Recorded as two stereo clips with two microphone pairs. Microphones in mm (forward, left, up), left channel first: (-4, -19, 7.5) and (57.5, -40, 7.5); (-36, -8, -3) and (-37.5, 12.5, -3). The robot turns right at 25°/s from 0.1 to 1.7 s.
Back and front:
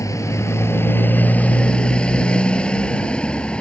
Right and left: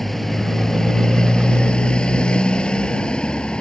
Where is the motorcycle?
165° right; by 3.6 s 125° right.